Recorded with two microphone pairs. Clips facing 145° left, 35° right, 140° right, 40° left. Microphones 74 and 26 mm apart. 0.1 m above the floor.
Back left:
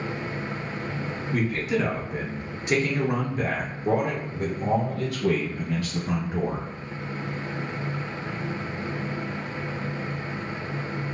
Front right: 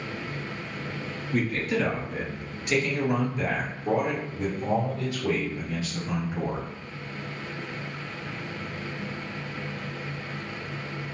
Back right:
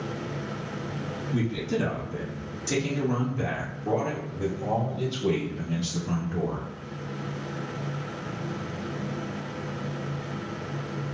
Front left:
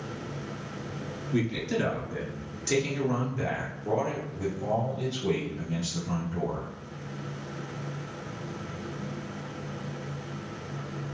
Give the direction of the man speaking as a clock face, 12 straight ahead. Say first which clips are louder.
Back left 1 dB, even; 10 o'clock.